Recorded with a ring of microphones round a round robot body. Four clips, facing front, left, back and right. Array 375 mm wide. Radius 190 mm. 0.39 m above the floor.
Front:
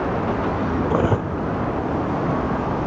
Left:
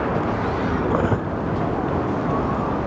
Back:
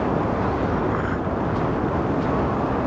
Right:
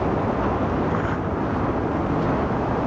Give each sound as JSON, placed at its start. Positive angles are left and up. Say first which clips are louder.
{"t": 0.8, "sound": "cutlery clinking", "louder": "left 3 dB, front 3 dB", "azimuth_deg": 30}